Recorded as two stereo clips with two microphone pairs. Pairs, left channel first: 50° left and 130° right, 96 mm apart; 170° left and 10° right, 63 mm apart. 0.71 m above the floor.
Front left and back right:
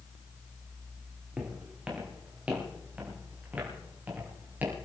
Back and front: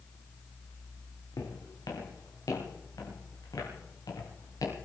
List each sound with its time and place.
1.4 s footsteps: 150° left, 5.5 m; by 4.8 s 160° left, 8 m